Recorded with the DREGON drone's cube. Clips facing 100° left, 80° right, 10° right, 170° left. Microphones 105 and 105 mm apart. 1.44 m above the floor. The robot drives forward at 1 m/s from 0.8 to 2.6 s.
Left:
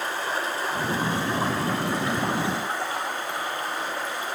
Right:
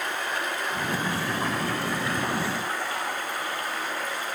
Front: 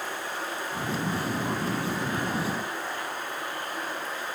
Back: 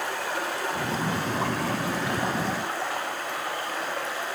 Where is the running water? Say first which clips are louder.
Left 2 dB, back 4 dB; 160° left, 5 m; by 4.4 s 165° left, 7 m.